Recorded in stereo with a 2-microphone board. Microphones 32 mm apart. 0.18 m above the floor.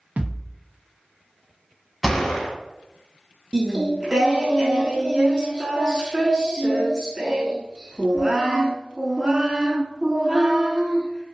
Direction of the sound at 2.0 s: Centre (ahead or behind).